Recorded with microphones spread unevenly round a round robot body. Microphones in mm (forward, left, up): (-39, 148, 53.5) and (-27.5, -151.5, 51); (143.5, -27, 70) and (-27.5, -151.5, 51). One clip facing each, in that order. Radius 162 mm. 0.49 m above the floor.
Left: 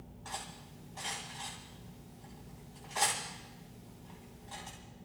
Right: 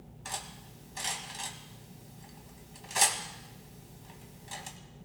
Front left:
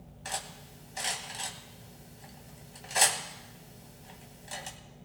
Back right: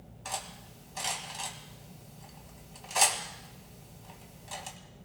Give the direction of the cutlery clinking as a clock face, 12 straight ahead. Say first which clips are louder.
Right 3 dB, even; 1 o'clock.